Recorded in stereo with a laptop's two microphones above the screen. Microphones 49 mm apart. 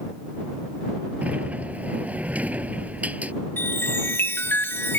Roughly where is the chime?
Left.